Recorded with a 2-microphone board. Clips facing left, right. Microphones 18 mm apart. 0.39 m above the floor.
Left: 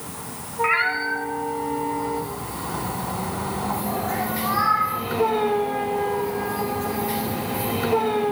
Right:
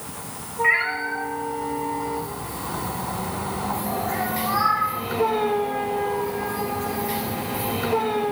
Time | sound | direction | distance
0.6 | a cat meowing | 55° left (ahead or behind) | 1.9 m